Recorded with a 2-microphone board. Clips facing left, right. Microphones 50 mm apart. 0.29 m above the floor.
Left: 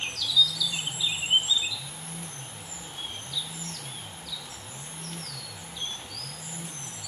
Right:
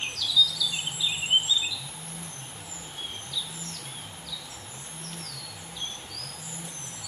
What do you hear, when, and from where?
Only background noise.